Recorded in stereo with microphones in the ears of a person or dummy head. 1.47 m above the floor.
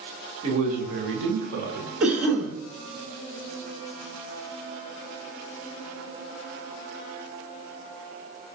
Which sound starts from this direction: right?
A man speaking, at 0.4 s.